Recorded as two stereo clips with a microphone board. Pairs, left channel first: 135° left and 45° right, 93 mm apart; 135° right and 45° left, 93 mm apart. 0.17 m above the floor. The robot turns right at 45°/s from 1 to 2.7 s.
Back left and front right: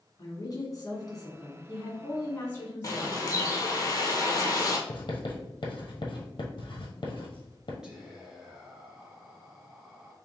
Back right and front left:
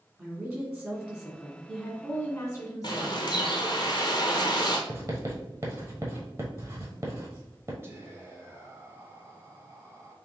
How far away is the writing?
About 1.3 m.